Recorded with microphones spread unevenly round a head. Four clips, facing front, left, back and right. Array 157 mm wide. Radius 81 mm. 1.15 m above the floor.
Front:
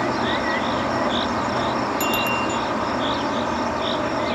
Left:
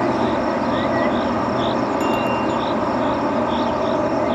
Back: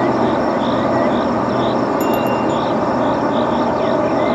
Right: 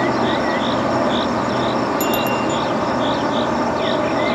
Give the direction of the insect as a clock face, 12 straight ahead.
5 o'clock.